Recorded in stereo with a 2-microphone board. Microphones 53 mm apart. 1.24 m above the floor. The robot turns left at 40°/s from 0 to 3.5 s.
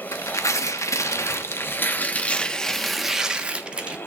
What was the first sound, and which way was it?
Tearing paper, 115° left.